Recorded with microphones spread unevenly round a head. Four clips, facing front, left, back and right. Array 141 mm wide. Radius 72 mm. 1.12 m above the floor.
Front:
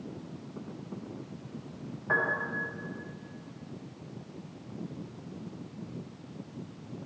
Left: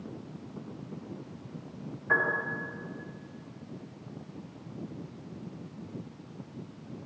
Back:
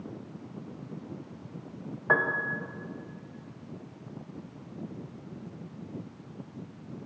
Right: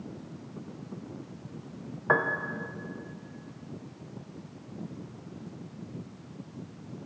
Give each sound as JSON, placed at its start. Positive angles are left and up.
{"t": 2.1, "sound": "a piano", "azimuth_deg": -115, "distance_m": 0.7}